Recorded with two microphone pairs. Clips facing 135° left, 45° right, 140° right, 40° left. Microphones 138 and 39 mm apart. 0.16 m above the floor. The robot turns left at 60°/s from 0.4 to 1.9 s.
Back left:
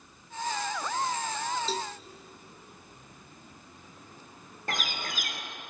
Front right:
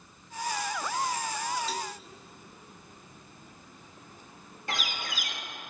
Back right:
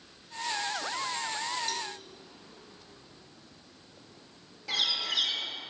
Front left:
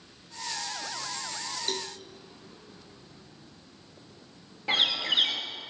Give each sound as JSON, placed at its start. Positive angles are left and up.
{"t": 1.7, "sound": "a cowbell", "azimuth_deg": 75, "distance_m": 0.5}
{"t": 4.7, "sound": "a bird", "azimuth_deg": 90, "distance_m": 1.7}